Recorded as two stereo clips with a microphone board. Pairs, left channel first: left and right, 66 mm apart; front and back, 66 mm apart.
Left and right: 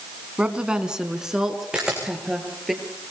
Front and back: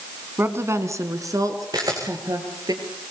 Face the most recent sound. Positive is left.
turn(degrees=-170)